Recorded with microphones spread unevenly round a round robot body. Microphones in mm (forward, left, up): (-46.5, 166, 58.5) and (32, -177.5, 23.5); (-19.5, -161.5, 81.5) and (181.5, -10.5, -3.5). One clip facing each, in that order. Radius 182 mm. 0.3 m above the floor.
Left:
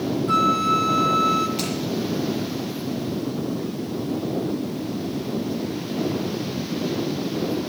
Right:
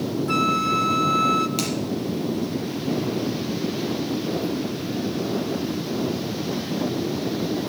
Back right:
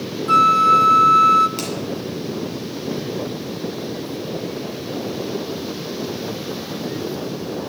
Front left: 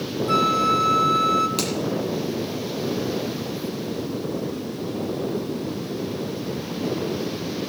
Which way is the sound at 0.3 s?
35° right.